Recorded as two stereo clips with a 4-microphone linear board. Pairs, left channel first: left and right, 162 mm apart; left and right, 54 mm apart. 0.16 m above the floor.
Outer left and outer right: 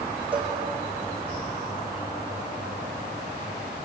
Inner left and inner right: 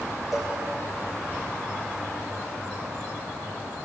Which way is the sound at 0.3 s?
5° right (ahead or behind).